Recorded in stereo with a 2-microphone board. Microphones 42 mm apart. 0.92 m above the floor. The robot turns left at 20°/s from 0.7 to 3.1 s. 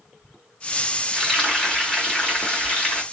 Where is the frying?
Straight behind, 2 m; by 3.0 s 140° left, 2 m.